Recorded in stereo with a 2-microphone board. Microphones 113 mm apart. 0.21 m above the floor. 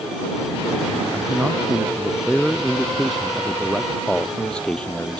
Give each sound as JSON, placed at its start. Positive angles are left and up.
{"t": 1.1, "sound": "a man speaking", "side_deg": -5}